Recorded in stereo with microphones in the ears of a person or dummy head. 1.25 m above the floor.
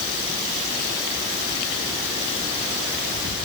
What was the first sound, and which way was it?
Only background noise.